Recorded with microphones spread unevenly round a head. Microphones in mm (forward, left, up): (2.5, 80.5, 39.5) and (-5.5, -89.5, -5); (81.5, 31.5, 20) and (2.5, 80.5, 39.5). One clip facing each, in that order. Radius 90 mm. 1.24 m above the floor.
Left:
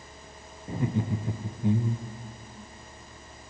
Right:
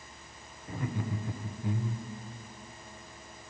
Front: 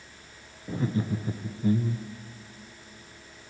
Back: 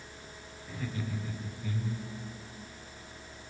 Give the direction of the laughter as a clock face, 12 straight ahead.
11 o'clock.